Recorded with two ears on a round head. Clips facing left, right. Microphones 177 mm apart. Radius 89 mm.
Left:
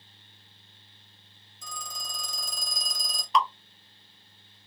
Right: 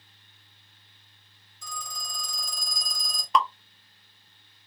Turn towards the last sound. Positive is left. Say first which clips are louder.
# right 1 dB
turn(degrees=-40)  # may be behind; listen again after turning